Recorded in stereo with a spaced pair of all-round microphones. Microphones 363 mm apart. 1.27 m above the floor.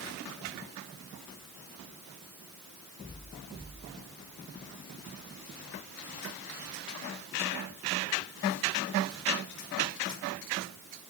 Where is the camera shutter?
No camera shutter in this recording.